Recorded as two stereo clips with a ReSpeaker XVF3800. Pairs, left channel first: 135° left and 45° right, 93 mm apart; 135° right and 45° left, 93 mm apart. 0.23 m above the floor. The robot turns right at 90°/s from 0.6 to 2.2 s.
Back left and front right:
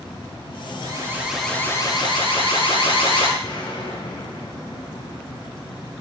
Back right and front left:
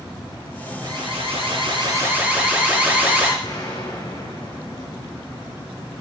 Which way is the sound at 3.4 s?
175° left.